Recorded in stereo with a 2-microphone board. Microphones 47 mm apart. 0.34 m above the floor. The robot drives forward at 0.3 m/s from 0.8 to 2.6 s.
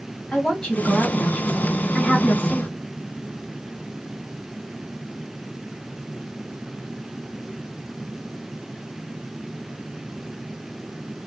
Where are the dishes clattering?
I don't hear dishes clattering.